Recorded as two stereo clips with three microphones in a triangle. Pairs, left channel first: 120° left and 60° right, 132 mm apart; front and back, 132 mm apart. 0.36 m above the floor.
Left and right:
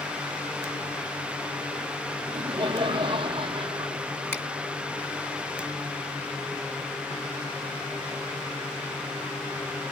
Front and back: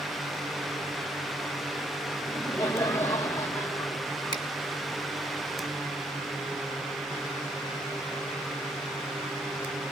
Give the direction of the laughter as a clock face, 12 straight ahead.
2 o'clock.